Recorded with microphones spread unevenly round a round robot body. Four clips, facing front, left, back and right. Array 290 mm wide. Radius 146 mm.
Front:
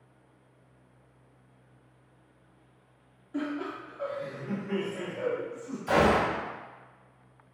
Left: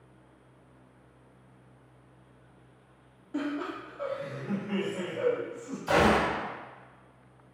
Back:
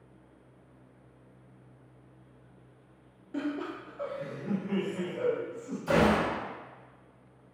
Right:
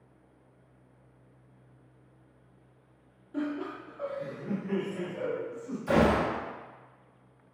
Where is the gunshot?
145° right, 0.9 m.